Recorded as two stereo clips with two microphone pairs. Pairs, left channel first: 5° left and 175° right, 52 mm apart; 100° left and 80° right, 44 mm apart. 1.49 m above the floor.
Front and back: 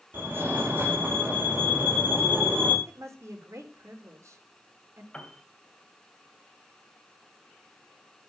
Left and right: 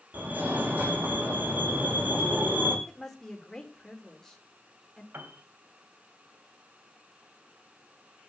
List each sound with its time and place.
0.1 s a fire alarm: 130° right, 6 m
2.9 s a woman speaking: 175° left, 4 m
5.1 s a piano: 70° right, 2.5 m